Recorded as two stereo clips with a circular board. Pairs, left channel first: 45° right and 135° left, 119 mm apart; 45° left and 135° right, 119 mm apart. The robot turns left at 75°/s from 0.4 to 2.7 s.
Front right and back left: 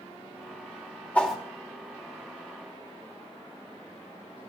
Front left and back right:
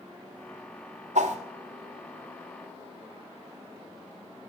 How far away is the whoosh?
About 2 m.